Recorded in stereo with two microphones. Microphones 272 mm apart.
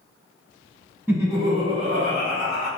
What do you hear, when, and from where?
1.1 s laughter: 10° right (ahead or behind), 1.0 m; by 2.7 s 45° right (ahead or behind), 1.4 m